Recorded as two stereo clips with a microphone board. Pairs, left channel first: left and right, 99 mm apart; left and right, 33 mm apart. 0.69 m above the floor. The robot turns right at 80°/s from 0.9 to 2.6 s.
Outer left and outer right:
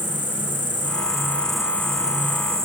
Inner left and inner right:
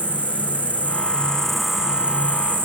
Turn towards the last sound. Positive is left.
turn(degrees=-95)